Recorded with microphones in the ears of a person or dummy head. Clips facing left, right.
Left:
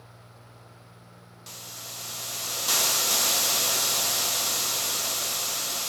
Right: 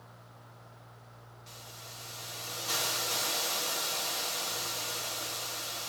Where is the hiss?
75° left (ahead or behind), 0.5 m.